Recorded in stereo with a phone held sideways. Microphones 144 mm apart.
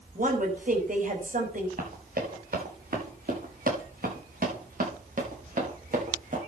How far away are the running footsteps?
About 8 m.